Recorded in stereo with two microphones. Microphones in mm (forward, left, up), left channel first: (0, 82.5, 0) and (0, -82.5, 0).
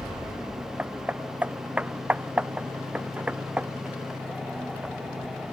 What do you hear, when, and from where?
0.8 s hammering: 10° right (ahead or behind)